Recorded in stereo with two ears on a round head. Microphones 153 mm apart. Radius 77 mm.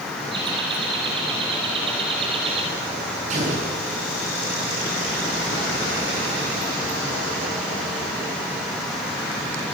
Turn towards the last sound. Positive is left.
turn(degrees=-45)  # may be behind; listen again after turning